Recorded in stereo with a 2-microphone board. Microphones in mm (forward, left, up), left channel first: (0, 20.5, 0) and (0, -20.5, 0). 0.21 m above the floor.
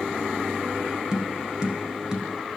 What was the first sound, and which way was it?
Tapping, 15° right (ahead or behind).